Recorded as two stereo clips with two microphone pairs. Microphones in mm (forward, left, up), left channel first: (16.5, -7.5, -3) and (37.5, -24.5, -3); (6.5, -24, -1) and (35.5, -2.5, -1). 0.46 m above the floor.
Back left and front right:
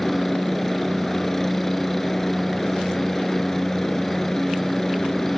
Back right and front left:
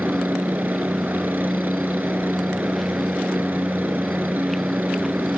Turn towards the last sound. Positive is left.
turn(degrees=70)